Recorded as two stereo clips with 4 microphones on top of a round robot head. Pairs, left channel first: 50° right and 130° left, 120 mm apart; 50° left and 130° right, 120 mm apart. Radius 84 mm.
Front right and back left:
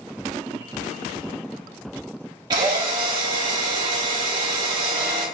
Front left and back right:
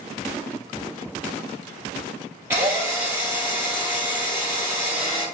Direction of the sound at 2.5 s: 165° left.